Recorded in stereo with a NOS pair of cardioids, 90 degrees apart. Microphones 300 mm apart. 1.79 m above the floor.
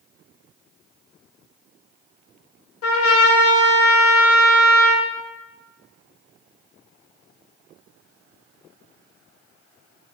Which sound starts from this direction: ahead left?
A trumpet, at 2.8 s.